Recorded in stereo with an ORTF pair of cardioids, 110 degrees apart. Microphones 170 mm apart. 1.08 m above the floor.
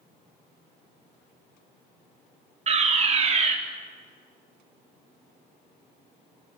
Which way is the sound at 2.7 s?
40° right.